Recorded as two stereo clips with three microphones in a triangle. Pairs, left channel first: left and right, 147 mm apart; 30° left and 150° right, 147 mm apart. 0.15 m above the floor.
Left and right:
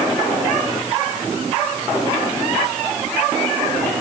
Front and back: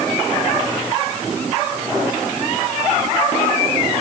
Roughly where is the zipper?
I don't hear a zipper.